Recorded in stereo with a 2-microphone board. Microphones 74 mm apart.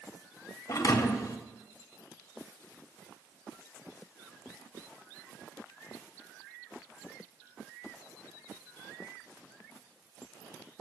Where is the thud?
45° left (ahead or behind), 0.5 m.